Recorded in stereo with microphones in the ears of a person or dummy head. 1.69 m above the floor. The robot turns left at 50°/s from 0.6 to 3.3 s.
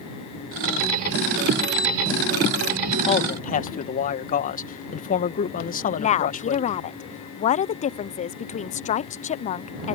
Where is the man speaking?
30° left (ahead or behind); by 6.7 s 45° left (ahead or behind).